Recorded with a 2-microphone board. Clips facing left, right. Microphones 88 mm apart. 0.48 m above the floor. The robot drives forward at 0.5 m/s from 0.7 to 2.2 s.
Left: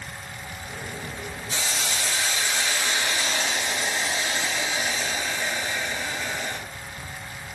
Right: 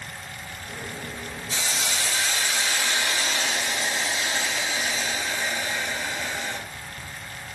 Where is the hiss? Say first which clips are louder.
Even; 25° left (ahead or behind), 1.1 m; by 6.6 s 20° left (ahead or behind), 1.4 m.